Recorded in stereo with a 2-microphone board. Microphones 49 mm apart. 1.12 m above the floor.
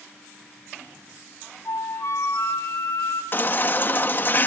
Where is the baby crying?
35° left (ahead or behind), 1.2 m.